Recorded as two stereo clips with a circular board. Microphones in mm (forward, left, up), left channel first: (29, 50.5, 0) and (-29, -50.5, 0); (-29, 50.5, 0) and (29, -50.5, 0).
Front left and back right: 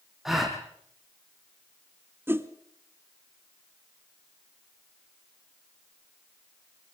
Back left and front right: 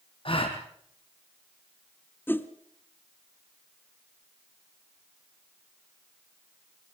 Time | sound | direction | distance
0.2 | a gasp | 155° left | 3.5 m
2.3 | a whoosh | straight behind | 1.0 m